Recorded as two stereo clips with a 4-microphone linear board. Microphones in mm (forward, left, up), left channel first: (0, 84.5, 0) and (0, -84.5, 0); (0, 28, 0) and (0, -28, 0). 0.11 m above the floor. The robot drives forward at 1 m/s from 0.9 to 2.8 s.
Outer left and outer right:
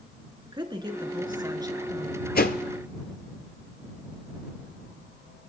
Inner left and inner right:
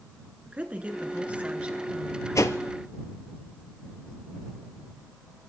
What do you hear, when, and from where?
0.5 s a woman speaking: 25° right (ahead or behind), 1.4 m; by 2.2 s 15° right (ahead or behind), 1.9 m
2.4 s a whoosh: 60° left (ahead or behind), 0.7 m; by 2.6 s 65° left (ahead or behind), 0.7 m